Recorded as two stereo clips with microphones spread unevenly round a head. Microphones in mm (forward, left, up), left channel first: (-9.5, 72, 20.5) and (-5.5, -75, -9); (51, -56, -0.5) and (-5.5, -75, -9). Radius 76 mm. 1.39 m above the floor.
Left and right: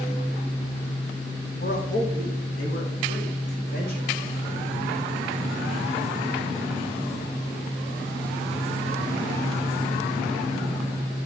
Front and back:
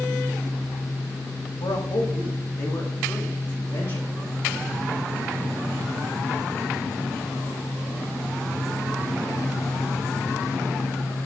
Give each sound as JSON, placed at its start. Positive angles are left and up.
{"t": 1.6, "sound": "a man speaking", "azimuth_deg": 50, "distance_m": 1.4}